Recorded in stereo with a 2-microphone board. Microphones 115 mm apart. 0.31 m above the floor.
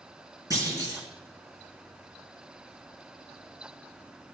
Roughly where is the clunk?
Right.